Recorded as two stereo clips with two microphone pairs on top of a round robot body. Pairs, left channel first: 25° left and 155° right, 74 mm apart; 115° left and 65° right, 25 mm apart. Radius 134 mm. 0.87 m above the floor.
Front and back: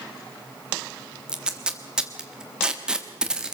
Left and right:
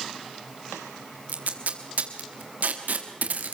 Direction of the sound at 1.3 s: 75° right.